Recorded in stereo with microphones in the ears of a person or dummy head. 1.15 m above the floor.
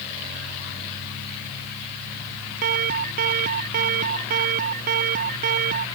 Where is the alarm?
50° right (ahead or behind).